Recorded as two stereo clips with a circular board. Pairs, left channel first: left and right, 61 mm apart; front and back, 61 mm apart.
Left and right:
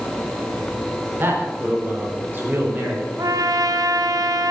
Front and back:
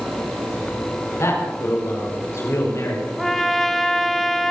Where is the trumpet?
85° right, 1.1 m.